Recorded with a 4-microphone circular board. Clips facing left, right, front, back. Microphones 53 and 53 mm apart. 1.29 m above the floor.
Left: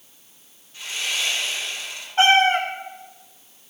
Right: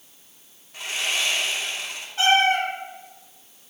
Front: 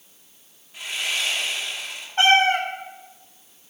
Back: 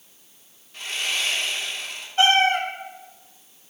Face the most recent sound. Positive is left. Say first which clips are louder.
# left 3 dB, front 1 dB
turn(degrees=45)